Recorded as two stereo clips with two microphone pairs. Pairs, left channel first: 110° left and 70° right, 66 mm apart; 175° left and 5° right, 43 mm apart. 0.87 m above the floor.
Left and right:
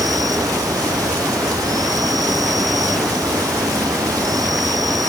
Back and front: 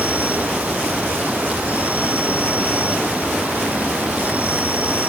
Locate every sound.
0.0 s an insect: 60° right